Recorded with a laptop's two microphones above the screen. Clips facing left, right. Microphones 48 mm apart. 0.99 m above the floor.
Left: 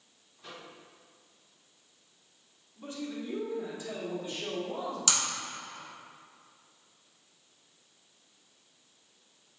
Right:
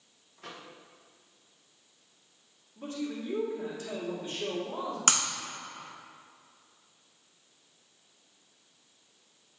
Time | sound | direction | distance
0.4 | a microwave | 65° right (ahead or behind) | 0.9 m
2.8 | a man speaking | 50° right (ahead or behind) | 1.6 m
5.1 | breaking glass | 40° right (ahead or behind) | 1.3 m